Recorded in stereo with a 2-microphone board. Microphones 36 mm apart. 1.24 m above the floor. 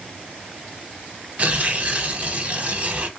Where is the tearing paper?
45° right (ahead or behind), 0.8 m.